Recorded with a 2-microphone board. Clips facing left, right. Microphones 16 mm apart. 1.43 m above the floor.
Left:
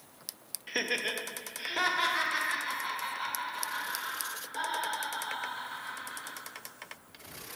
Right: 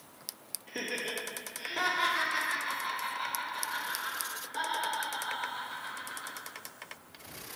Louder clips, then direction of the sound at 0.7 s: Left 4 dB; 45° left (ahead or behind).